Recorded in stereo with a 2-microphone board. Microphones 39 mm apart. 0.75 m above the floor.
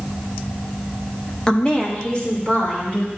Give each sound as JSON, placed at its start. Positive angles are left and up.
{"t": 1.5, "sound": "a woman speaking", "side_deg": 20, "distance_m": 0.6}